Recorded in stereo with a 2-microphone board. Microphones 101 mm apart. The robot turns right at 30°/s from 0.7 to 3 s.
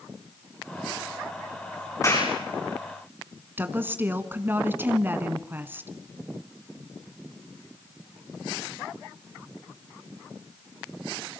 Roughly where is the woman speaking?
Right.